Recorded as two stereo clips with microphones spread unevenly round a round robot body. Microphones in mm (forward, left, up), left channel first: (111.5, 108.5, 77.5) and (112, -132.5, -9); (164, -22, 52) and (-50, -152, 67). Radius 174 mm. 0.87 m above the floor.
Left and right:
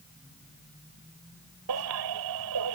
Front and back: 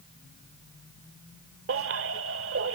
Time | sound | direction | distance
1.7 | a baby crying | 115° right | ?